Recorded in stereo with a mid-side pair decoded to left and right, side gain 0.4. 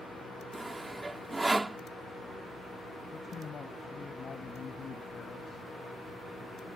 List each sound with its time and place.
0.5 s sawing: 20° right
3.1 s a man speaking: 50° left